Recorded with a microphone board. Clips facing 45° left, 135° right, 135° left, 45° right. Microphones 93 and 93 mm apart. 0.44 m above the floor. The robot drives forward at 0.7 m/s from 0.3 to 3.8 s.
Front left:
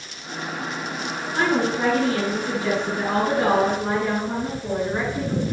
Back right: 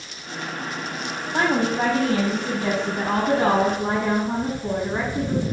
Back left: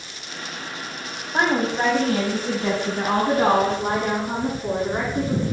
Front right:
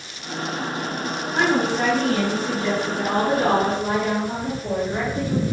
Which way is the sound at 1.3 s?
165° right.